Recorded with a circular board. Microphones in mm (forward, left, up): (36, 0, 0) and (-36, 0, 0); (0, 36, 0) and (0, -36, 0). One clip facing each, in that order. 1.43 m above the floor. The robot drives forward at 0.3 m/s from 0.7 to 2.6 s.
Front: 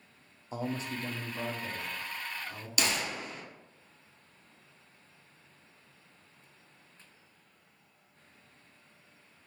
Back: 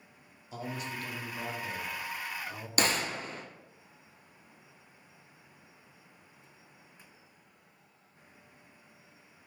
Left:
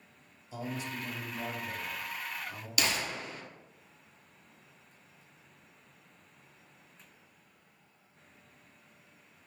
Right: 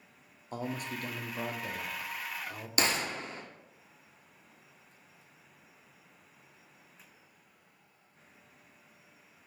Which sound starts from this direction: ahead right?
A man speaking, at 0.5 s.